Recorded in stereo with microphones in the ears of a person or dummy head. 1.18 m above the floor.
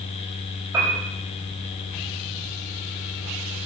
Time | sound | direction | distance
0.7 | a piano | 20° right (ahead or behind) | 7 m